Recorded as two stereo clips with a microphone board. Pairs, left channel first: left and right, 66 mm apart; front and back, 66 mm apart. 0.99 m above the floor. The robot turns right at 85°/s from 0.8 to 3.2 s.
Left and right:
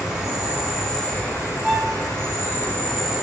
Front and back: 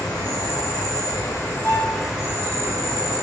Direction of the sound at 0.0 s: 10° right.